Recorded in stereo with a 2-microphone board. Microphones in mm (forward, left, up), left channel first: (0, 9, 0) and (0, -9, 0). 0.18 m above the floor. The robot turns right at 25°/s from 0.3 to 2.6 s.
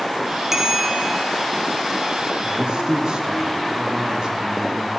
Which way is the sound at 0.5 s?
20° right (ahead or behind).